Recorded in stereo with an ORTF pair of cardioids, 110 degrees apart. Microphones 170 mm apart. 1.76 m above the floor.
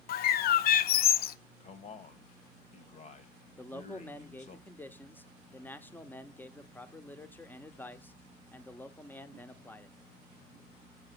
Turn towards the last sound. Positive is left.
turn(degrees=10)